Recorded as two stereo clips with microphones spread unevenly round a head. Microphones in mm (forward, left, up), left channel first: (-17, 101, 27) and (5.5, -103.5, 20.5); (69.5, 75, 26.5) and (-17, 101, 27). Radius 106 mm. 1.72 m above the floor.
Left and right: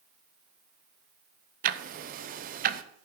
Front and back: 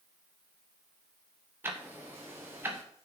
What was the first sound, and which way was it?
Ticking, 125° right.